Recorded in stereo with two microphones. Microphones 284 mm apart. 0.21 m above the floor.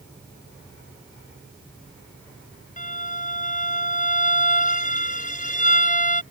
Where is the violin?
30° left (ahead or behind).